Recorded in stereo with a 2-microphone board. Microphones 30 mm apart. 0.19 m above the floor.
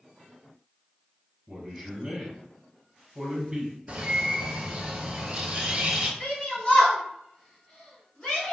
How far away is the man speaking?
About 1.3 m.